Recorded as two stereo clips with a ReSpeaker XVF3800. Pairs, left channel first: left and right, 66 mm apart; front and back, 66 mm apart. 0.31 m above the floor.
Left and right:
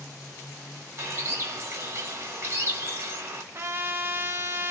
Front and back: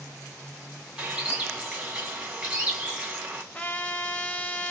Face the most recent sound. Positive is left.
turn(degrees=-60)